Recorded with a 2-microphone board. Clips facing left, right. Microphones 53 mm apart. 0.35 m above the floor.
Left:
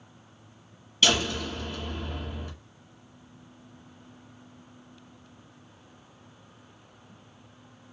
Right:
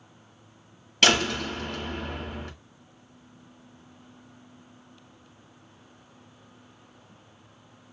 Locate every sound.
1.0 s a door slam: 65° right (ahead or behind), 1.7 m